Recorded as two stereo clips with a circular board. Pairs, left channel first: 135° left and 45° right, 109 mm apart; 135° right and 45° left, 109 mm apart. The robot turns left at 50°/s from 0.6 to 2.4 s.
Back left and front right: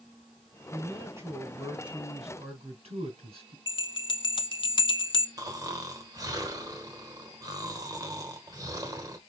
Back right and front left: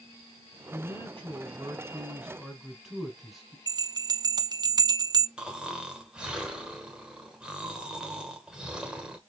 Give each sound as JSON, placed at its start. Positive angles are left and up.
{"t": 0.7, "sound": "a man speaking", "azimuth_deg": 35, "distance_m": 3.0}
{"t": 3.7, "sound": "a bell", "azimuth_deg": 95, "distance_m": 0.6}
{"t": 5.4, "sound": "snoring", "azimuth_deg": -30, "distance_m": 1.1}